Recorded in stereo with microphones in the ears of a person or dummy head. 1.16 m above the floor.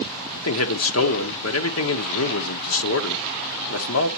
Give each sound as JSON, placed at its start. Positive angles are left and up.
{"t": 0.4, "sound": "a man speaking", "side_deg": 70, "distance_m": 1.0}